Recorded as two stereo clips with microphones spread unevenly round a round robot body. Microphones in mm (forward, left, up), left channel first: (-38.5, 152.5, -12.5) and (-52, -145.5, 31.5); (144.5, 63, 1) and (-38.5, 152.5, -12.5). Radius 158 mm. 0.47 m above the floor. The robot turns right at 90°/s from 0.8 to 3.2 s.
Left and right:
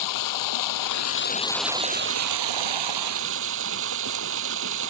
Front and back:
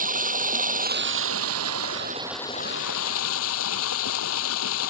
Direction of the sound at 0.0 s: 105° left.